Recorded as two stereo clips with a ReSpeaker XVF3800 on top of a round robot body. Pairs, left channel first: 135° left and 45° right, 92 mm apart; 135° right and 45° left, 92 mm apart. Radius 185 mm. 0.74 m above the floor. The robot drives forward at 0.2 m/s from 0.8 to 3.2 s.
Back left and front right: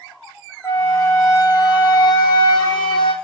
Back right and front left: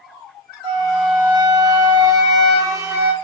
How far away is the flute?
About 0.9 m.